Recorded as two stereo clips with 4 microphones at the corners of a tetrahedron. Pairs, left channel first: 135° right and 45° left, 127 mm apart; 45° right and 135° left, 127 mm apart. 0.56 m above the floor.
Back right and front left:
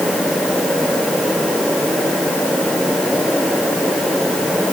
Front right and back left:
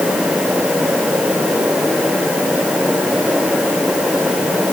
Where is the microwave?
I don't hear a microwave.